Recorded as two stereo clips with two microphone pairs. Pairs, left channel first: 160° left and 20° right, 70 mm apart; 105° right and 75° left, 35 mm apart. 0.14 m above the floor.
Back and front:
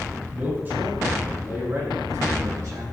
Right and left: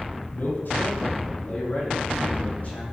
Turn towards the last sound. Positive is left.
turn(degrees=-60)